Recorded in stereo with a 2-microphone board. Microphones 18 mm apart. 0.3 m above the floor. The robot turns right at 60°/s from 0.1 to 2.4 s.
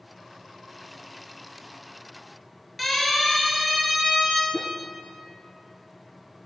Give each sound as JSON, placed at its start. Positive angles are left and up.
{"t": 2.8, "sound": "a siren", "side_deg": 0, "distance_m": 7.0}
{"t": 4.5, "sound": "a whoosh", "side_deg": 5, "distance_m": 2.5}